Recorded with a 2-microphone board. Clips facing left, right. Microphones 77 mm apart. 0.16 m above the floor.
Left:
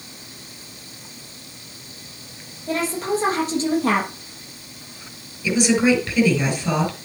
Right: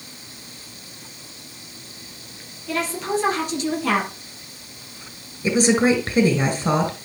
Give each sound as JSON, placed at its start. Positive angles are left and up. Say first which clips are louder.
{"t": 2.7, "sound": "a woman speaking", "louder": "left 2 dB", "side_deg": 35, "distance_m": 4.5}
{"t": 5.4, "sound": "a woman speaking", "louder": "even", "side_deg": -40, "distance_m": 3.0}